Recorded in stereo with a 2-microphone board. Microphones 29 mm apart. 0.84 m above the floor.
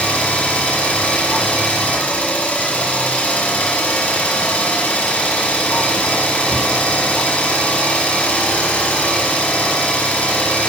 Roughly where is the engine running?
Left.